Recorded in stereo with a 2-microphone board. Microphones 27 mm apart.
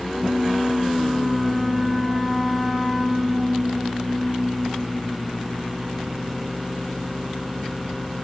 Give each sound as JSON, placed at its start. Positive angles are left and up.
{"t": 0.1, "sound": "a flute", "side_deg": -10, "distance_m": 4.5}